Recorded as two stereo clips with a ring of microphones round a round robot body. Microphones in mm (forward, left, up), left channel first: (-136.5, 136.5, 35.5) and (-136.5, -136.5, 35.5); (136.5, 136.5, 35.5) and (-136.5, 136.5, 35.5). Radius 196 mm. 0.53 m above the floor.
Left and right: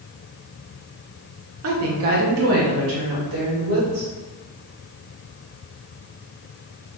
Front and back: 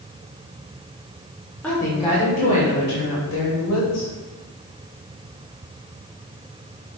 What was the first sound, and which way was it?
A woman speaking, 85° right.